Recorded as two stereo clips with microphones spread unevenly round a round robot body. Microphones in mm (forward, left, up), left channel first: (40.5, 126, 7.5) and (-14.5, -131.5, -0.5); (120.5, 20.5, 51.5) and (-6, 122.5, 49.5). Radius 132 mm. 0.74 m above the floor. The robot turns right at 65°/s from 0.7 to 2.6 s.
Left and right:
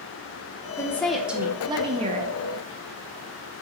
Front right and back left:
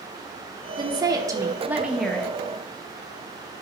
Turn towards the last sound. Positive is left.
turn(degrees=-95)